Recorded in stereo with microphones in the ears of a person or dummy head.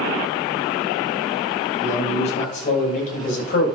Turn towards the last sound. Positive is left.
turn(degrees=50)  # may be behind; listen again after turning